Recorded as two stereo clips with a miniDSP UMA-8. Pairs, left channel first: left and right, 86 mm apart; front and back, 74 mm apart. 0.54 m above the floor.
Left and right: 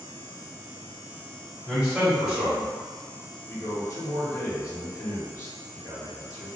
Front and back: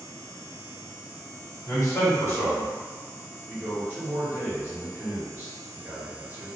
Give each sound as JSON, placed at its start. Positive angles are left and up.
{"t": 1.7, "sound": "a man speaking", "azimuth_deg": -5, "distance_m": 1.7}
{"t": 3.5, "sound": "a man speaking", "azimuth_deg": 130, "distance_m": 1.3}